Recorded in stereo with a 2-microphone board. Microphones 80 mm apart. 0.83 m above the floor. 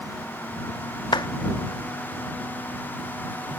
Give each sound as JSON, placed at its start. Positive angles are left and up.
{"t": 1.1, "sound": "a clap", "side_deg": 65}